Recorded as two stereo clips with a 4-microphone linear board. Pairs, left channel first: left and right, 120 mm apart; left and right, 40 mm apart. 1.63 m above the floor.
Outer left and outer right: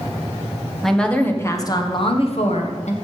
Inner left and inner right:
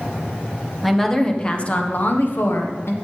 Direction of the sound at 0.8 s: Centre (ahead or behind).